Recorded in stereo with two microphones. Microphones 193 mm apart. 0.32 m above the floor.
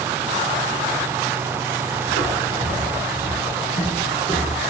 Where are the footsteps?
75° left (ahead or behind), 4 m; by 4.6 s 80° left, 6 m.